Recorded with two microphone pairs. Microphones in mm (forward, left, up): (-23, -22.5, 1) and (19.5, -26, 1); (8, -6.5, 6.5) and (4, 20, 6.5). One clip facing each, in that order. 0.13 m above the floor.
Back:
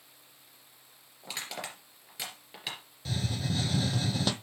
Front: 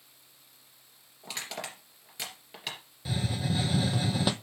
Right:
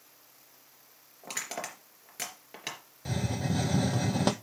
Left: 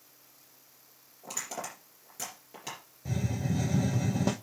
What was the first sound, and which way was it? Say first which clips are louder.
Crushing: front 1 dB, right 1 dB; 95° right.